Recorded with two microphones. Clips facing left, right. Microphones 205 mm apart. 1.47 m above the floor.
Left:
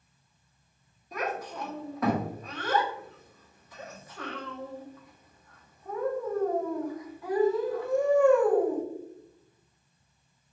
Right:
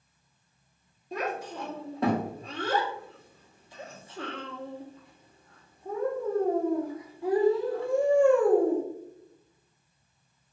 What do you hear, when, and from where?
1.1 s a child speaking: 30° right (ahead or behind), 0.9 m